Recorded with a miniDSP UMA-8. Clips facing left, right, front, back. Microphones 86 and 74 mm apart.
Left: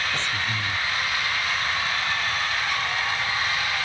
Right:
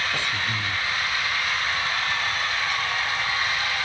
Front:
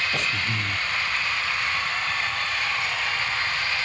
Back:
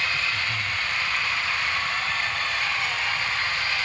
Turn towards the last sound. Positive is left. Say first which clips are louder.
# even, front 1 dB
turn(degrees=-10)